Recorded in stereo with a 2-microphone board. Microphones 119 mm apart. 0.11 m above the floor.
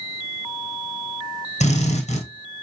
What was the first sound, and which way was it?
A drill, 70° left (ahead or behind).